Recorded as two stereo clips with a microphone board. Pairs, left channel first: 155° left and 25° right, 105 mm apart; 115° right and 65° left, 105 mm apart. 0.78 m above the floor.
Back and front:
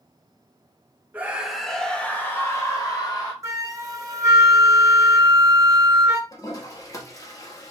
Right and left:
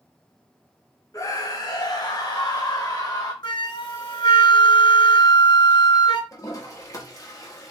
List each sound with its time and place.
1.1 s a scream: 85° right, 1.0 m; by 3.3 s 160° right, 1.6 m
3.4 s a flute: 75° right, 0.7 m
6.3 s a toilet flushing: 155° right, 0.9 m